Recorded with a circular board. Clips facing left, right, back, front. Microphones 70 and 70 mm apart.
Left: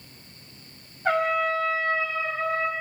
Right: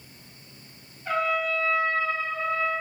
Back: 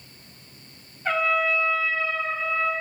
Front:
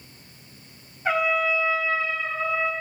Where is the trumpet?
80° left, 1.0 m.